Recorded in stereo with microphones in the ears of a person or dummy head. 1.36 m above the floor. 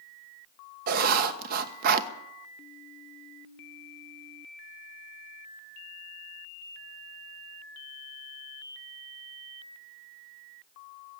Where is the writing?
50° right (ahead or behind), 1.1 m.